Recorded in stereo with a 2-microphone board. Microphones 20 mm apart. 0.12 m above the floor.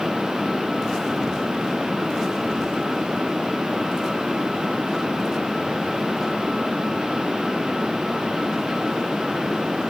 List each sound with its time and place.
Only background noise.